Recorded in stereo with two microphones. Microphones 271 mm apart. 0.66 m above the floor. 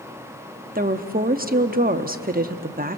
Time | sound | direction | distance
0.8 | a woman speaking | 35° right (ahead or behind) | 1.0 m